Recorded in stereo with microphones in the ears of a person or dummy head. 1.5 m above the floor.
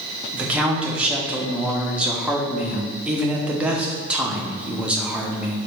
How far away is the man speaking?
About 0.7 m.